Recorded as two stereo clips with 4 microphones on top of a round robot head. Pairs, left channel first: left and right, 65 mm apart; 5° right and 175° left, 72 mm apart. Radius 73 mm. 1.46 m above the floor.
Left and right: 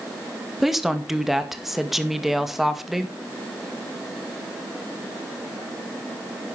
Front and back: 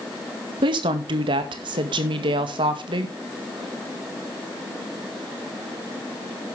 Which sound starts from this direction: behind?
A woman speaking, at 0.6 s.